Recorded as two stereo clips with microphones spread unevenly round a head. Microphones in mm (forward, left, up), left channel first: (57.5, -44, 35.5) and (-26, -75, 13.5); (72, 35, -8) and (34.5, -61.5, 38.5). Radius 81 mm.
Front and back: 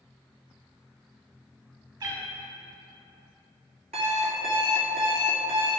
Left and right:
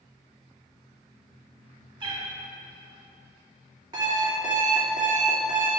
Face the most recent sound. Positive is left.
turn(degrees=-160)